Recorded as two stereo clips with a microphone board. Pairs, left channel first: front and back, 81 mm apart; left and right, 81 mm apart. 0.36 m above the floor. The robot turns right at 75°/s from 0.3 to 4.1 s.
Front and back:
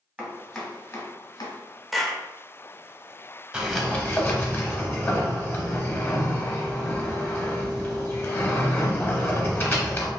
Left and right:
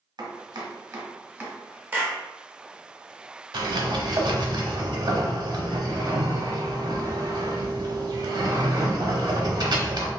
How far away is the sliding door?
About 0.6 m.